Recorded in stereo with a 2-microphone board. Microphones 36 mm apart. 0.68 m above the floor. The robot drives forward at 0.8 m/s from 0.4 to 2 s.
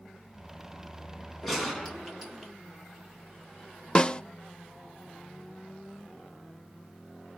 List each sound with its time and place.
1.4 s a gunshot: centre (ahead or behind), 2.5 m
4.0 s a snare drum: 25° left (ahead or behind), 0.5 m